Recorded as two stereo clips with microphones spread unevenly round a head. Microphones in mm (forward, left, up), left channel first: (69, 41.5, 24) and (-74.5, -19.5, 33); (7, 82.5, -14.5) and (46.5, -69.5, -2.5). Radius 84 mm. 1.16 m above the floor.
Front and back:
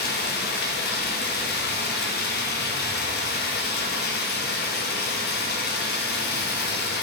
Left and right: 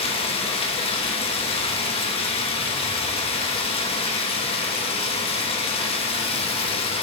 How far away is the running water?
About 0.9 m.